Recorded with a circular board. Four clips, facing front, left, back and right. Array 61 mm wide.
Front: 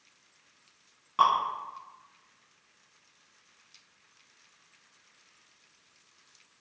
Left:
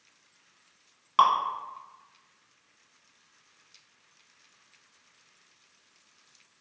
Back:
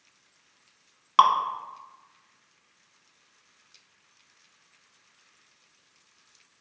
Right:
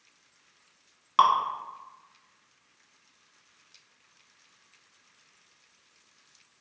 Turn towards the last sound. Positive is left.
turn(degrees=-175)